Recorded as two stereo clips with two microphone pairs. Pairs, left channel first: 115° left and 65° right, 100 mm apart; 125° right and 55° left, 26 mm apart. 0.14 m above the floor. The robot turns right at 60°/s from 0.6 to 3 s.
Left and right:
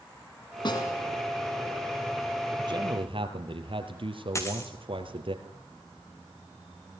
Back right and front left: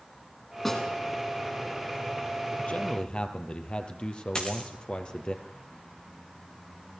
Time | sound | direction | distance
0.7 | a snare drum | 150° left | 7 m
2.6 | a man speaking | 100° right | 3.5 m
4.3 | a dropped coin | 175° left | 3 m